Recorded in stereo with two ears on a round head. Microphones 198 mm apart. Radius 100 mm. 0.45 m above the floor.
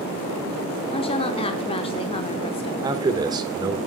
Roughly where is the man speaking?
Centre.